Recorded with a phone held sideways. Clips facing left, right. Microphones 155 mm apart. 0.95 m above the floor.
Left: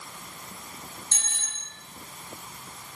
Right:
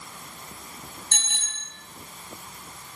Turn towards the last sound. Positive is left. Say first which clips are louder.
# right 2 dB
turn(degrees=-80)